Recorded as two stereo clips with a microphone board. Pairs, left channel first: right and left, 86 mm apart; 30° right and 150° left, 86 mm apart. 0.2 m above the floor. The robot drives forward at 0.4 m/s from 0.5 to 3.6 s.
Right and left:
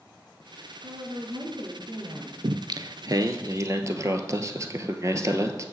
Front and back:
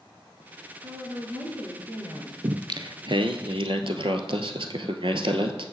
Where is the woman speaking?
100° left, 2.5 m; by 2.3 s 115° left, 2.5 m.